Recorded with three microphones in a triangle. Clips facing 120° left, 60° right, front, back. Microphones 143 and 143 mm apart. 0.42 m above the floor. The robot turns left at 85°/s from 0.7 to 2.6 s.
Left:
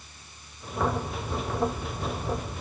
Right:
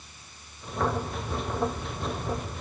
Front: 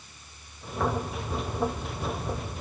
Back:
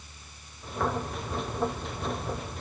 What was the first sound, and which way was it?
Only background noise.